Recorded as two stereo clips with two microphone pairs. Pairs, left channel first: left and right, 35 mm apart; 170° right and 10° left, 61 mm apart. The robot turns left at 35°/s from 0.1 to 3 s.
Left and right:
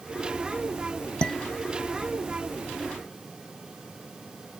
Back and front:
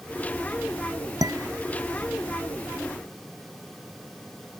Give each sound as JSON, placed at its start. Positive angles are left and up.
{"t": 1.2, "sound": "dishes clattering", "azimuth_deg": 25}